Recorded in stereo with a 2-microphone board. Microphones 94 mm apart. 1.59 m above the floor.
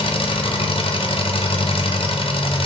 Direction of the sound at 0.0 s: 70° left (ahead or behind).